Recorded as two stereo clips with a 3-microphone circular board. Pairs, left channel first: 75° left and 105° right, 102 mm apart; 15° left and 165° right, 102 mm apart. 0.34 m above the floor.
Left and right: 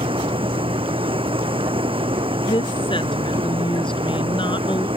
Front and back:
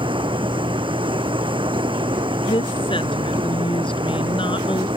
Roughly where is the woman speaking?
Ahead left.